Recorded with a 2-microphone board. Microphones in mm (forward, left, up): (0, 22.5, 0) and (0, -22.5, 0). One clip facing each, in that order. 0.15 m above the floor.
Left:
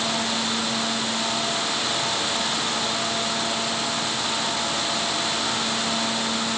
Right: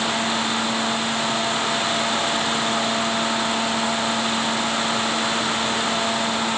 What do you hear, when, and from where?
Only background noise.